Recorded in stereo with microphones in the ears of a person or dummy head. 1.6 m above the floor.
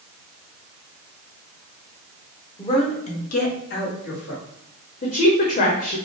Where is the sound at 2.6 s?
25° left (ahead or behind), 1.1 m; by 4.4 s 70° left (ahead or behind), 1.8 m.